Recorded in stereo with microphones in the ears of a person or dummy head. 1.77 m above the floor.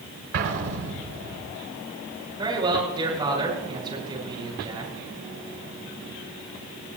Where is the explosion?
55° right (ahead or behind), 2.5 m.